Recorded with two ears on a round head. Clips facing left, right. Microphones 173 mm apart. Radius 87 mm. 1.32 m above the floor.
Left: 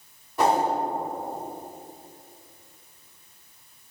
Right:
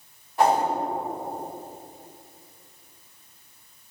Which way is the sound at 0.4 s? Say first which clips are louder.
Right 1 dB; 85° left.